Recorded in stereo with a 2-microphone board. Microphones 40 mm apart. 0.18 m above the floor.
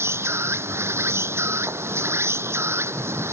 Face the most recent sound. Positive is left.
turn(degrees=-85)